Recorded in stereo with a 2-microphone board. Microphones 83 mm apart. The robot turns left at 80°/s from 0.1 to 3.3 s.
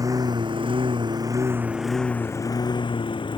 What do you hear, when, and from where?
0.0 s a lawn mower: 45° right (ahead or behind); by 3.4 s 75° left (ahead or behind)